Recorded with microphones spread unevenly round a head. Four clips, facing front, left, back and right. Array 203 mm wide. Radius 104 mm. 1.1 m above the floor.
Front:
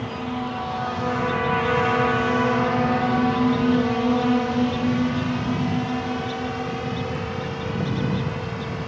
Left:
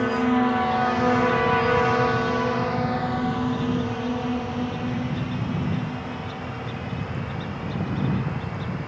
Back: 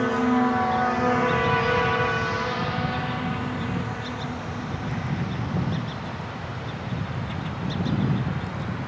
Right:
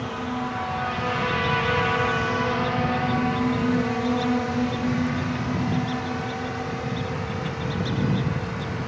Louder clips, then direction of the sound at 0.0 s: Left 8 dB, back 7 dB; 135° left.